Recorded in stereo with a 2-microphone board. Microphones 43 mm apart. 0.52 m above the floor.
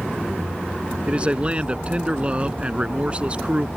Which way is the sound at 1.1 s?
30° right (ahead or behind).